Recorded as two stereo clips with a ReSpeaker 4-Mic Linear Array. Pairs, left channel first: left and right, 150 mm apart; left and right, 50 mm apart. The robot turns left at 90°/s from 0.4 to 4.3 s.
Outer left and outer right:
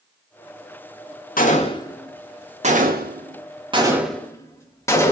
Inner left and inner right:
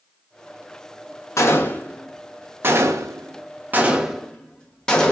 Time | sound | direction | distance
1.4 | a gunshot | 65° left (ahead or behind) | 0.5 m